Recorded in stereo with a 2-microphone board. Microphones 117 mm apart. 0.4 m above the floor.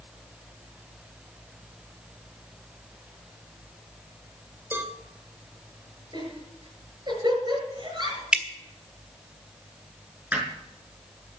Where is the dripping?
10° right (ahead or behind), 1.4 m.